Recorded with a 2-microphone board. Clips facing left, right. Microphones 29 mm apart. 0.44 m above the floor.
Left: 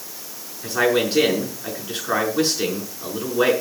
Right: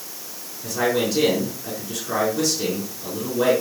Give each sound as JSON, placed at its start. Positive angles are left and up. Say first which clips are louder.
{"t": 0.6, "sound": "a man speaking", "louder": "left 2 dB", "side_deg": 45, "distance_m": 5.5}